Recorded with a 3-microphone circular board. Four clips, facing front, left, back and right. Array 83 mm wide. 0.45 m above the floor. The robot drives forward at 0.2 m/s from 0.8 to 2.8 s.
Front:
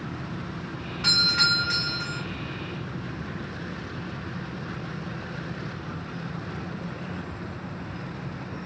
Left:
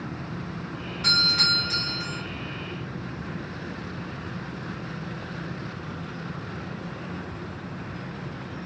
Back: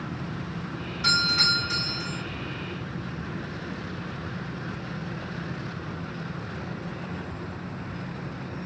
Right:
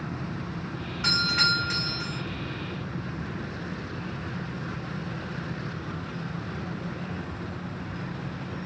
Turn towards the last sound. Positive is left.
turn(degrees=-65)